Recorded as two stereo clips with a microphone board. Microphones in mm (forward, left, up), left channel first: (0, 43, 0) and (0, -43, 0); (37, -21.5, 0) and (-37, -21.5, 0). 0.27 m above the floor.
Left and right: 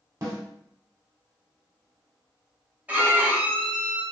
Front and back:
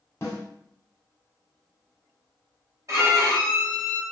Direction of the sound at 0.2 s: 45° right.